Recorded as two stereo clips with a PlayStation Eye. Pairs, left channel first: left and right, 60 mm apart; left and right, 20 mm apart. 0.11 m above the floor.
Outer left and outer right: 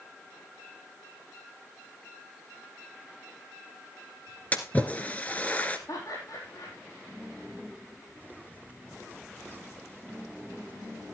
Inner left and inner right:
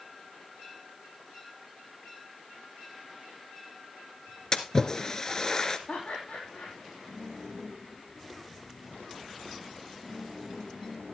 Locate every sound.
4.5 s a splash: 25° left (ahead or behind), 1.4 m
5.9 s laughter: 65° left (ahead or behind), 4 m